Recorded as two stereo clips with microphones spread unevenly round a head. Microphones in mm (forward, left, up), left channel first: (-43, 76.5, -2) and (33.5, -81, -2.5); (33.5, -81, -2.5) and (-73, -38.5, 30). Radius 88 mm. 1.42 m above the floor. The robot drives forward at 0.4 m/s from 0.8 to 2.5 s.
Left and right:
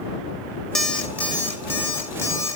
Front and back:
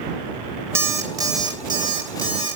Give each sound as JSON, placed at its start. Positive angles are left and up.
{"t": 0.8, "sound": "an alarm clock", "azimuth_deg": -155, "distance_m": 0.7}